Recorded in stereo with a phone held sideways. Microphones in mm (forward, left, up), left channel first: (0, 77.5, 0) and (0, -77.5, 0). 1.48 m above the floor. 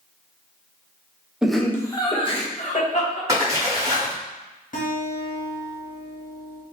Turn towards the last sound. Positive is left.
turn(degrees=55)  # may be behind; listen again after turning